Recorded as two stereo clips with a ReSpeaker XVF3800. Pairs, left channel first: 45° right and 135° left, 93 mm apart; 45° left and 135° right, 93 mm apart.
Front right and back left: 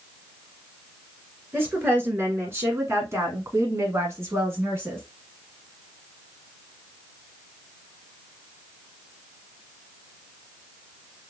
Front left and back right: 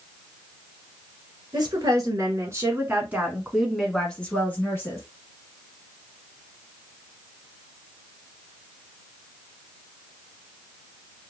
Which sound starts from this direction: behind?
A woman speaking, at 1.5 s.